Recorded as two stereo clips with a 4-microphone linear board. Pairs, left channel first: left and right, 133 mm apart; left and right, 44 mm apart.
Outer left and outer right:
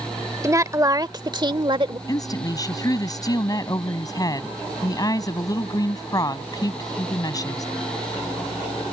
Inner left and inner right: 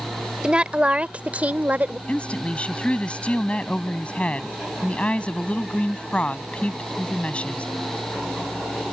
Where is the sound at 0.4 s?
25° right (ahead or behind); by 2.0 s 40° right (ahead or behind).